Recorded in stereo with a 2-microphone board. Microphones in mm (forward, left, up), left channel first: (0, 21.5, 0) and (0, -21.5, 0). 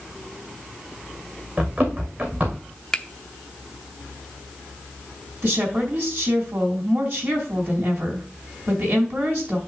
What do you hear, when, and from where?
1.6 s running footsteps: 40° right (ahead or behind), 2.5 m
2.9 s a finger snap: 20° left (ahead or behind), 0.7 m
5.4 s a woman speaking: 60° right (ahead or behind), 3.5 m